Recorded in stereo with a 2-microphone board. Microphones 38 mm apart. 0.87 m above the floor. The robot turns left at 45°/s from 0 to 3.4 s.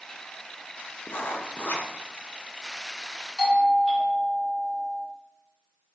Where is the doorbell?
15° right (ahead or behind), 0.9 m.